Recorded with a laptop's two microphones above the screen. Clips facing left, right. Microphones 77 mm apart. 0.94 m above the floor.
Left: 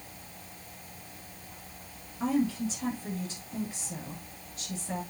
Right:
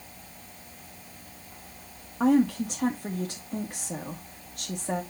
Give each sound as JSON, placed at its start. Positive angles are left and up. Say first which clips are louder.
{"t": 2.2, "sound": "a woman speaking", "louder": "right 6 dB", "side_deg": -65, "distance_m": 1.5}